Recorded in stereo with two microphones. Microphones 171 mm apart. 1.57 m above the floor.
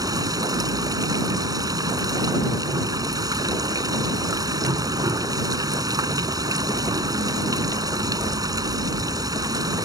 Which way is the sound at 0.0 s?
20° right (ahead or behind).